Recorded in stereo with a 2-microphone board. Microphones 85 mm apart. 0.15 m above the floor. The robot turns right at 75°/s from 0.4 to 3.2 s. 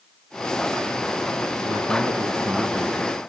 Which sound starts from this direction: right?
A man speaking, at 1.6 s.